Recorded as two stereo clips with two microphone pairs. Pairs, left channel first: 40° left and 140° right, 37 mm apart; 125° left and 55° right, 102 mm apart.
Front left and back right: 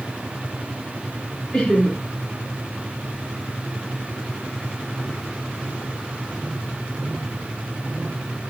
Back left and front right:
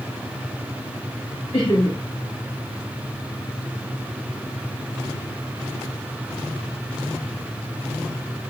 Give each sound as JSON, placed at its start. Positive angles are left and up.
{"t": 1.5, "sound": "laughter", "azimuth_deg": 115, "distance_m": 1.9}